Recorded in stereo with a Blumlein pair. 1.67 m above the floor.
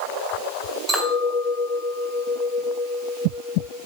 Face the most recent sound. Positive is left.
turn(degrees=-10)